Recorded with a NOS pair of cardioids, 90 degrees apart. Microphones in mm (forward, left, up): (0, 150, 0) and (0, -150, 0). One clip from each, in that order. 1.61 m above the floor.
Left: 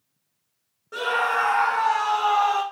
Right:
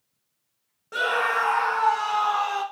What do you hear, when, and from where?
0.9 s a scream: 25° right, 0.7 m; by 2.6 s 40° left, 1.1 m